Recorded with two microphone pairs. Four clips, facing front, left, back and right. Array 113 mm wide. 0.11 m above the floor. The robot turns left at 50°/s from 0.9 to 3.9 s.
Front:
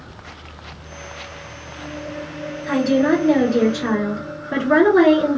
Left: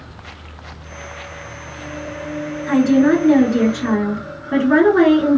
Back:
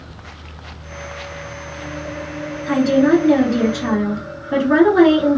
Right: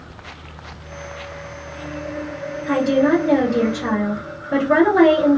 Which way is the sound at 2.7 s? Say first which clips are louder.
Left 3 dB, back 3 dB; 95° left.